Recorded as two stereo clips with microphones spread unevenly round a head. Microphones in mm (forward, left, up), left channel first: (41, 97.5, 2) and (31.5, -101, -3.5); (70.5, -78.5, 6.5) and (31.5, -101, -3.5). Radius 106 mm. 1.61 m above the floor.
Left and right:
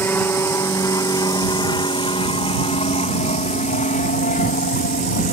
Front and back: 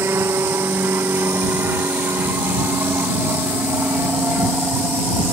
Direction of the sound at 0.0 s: 165° left.